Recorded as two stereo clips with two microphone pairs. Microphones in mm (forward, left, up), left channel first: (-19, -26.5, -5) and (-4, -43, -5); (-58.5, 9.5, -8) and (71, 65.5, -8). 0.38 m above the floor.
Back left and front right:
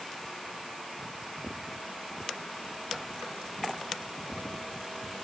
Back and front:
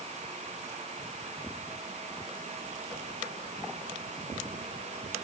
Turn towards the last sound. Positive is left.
No sound to turn to.